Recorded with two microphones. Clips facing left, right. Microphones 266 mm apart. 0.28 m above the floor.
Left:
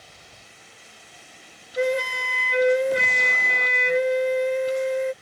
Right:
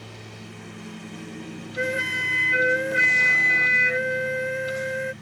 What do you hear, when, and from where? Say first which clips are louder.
0.0 s a lawn mower: right 12 dB; 65° right (ahead or behind)
1.8 s a flute: left 6 dB; 40° left (ahead or behind)